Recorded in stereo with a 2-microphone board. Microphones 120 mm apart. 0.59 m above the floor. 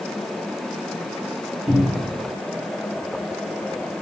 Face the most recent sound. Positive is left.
turn(degrees=-10)  # may be behind; listen again after turning